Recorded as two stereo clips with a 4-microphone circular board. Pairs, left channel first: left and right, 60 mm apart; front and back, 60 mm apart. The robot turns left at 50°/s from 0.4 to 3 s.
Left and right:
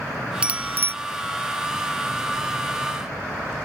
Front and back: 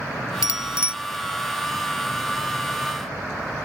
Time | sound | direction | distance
0.4 | a bicycle bell | 20° right | ?